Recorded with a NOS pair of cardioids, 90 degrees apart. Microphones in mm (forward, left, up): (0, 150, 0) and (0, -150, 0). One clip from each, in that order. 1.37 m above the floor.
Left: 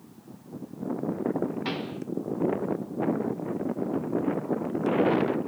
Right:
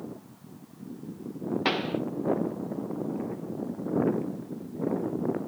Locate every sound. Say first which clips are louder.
1.6 s a pop: right 5 dB; 40° right, 1.2 m